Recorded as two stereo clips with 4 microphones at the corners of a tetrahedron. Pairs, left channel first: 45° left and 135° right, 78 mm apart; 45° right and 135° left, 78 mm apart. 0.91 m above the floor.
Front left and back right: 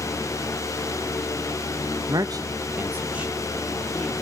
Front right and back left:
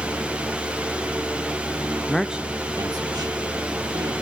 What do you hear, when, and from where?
2.1 s a man speaking: 120° right, 0.8 m; by 4.1 s 140° left, 2.5 m